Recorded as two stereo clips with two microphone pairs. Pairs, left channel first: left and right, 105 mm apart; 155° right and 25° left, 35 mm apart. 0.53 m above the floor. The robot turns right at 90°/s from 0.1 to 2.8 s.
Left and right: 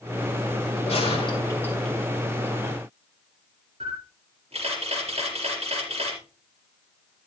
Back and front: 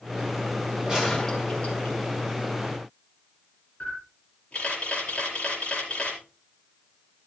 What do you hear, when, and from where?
0.9 s a gunshot: 90° left, 2.5 m; by 2.0 s 175° right, 2.5 m
3.8 s a camera shutter: 110° right, 4.5 m